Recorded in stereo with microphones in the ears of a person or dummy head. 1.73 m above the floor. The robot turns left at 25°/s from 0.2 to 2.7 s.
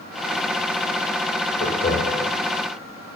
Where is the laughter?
35° left (ahead or behind), 4.5 m; by 2.3 s 55° left (ahead or behind), 4.5 m.